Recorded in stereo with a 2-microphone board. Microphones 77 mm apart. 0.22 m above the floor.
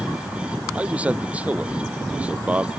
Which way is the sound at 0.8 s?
20° right (ahead or behind).